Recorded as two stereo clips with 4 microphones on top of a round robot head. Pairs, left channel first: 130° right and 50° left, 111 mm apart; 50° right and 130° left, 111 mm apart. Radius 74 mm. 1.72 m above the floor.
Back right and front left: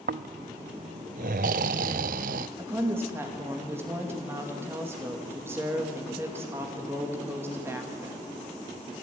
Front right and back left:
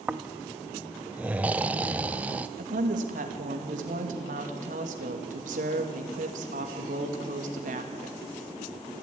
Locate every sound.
0.1 s snoring: 50° left, 0.5 m
2.6 s a woman speaking: 120° left, 2.5 m